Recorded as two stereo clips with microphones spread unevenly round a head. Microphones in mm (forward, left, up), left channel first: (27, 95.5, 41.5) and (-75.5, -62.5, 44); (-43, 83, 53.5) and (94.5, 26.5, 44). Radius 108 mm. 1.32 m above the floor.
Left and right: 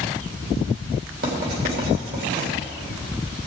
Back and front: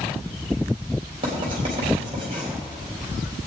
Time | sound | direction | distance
1.2 | writing | 80° right | 3 m